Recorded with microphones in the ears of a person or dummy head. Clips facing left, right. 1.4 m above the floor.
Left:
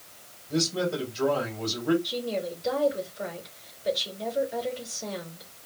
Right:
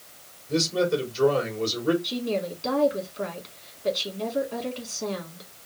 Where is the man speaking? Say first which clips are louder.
Right 4 dB; 85° right, 4 m.